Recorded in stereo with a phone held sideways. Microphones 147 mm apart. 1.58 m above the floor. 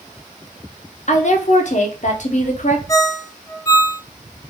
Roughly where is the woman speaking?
Left.